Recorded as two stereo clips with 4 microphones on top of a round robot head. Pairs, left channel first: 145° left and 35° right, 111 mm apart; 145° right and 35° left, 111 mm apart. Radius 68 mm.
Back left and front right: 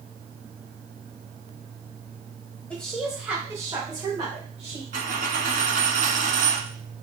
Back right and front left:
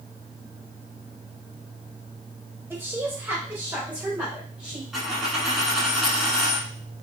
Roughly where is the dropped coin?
Ahead right.